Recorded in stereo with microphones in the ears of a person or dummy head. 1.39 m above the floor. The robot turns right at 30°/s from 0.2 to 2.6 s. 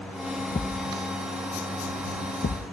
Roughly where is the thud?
Left.